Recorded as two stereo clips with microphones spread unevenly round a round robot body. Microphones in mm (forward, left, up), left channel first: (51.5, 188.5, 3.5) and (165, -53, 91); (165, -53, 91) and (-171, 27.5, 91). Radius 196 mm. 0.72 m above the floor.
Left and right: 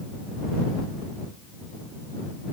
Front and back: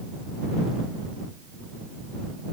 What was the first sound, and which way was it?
Only background noise.